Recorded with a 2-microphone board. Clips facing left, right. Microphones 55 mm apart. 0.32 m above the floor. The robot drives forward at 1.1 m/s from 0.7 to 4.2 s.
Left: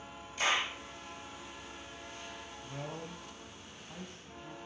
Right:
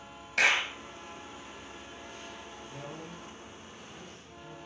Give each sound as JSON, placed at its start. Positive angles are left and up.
{"t": 0.4, "sound": "a clap", "side_deg": -80, "distance_m": 4.0}
{"t": 2.6, "sound": "a man speaking", "side_deg": 50, "distance_m": 2.0}